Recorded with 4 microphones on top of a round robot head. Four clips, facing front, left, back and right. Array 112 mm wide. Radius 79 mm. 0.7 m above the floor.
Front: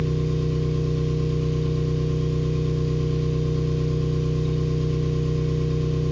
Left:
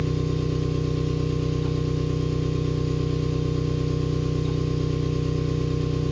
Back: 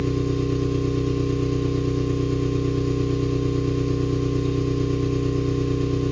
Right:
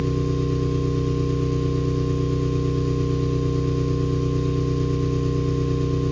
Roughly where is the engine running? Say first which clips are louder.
Right 3 dB, back 2 dB; behind right.